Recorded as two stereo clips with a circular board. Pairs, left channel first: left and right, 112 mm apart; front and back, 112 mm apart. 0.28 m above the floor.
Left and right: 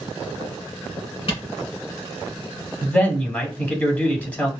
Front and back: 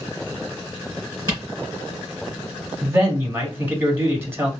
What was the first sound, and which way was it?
A camera shutter, 115° left.